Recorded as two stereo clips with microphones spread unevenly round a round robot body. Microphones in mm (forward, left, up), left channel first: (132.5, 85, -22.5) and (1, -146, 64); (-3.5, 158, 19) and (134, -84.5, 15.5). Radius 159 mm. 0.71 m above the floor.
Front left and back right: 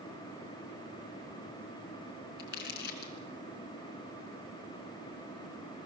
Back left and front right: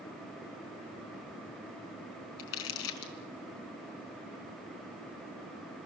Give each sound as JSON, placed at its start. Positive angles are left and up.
{"t": 2.4, "sound": "crumpling", "azimuth_deg": 120, "distance_m": 4.0}